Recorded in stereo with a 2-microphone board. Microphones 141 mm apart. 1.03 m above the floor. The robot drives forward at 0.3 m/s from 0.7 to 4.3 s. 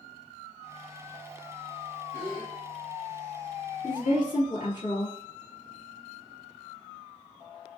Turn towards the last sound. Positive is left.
turn(degrees=70)  # may be behind; listen again after turning